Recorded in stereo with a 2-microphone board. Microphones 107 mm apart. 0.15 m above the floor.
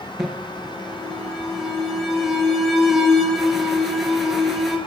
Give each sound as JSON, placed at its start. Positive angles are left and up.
{"t": 0.2, "sound": "an alarm", "side_deg": 0, "distance_m": 3.0}